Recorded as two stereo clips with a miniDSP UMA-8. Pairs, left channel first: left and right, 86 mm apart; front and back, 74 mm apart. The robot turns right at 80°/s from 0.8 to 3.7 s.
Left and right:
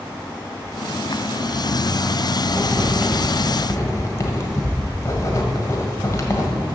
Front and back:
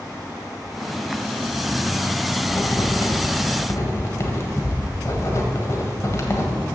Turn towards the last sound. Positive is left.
turn(degrees=40)